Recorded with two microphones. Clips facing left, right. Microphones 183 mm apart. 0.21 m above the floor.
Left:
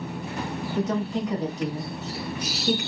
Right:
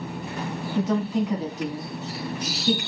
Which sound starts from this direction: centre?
A woman speaking, at 0.8 s.